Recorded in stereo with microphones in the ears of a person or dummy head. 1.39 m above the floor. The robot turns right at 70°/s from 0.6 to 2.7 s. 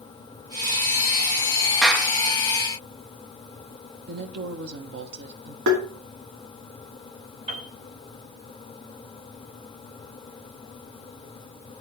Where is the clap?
5° left (ahead or behind), 1.9 m; by 2.1 s 15° right (ahead or behind), 1.9 m.